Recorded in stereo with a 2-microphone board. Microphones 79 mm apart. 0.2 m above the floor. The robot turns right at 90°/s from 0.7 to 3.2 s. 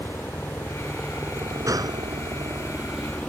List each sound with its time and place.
0.0 s a helicopter: 155° left; by 3.3 s 20° left
1.7 s a gunshot: 125° right; by 2.0 s 90° right